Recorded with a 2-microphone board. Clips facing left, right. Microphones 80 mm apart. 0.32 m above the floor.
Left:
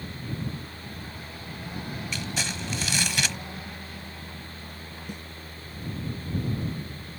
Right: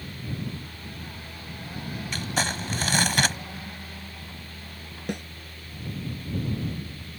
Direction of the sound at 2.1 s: 50° right (ahead or behind).